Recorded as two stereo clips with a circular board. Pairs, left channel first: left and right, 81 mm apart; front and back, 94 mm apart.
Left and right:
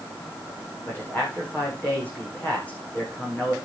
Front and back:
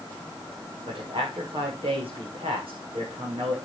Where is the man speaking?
160° left, 8 m.